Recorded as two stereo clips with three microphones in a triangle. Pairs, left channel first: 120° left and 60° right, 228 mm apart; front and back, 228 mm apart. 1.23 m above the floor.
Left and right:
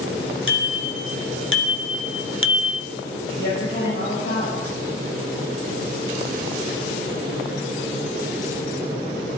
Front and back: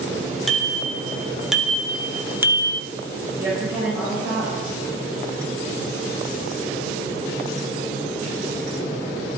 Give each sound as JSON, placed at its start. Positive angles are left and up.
{"t": 0.5, "sound": "a bicycle bell", "azimuth_deg": 90, "distance_m": 2.5}
{"t": 3.4, "sound": "a woman speaking", "azimuth_deg": 100, "distance_m": 7.5}